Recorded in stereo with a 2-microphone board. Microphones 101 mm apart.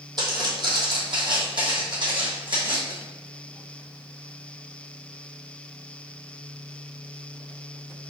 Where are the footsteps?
45° right (ahead or behind), 1.3 m; by 2.9 s 55° right (ahead or behind), 2 m.